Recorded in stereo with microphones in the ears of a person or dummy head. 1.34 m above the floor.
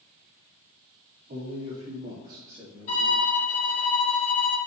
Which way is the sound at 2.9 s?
30° left (ahead or behind).